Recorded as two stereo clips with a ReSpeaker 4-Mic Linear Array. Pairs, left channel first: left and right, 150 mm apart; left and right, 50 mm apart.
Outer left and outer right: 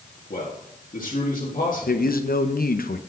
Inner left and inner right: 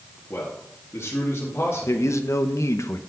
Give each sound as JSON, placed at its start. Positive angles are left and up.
{"t": 0.3, "sound": "a man speaking", "side_deg": 65, "distance_m": 1.8}
{"t": 1.9, "sound": "a man speaking", "side_deg": 80, "distance_m": 0.8}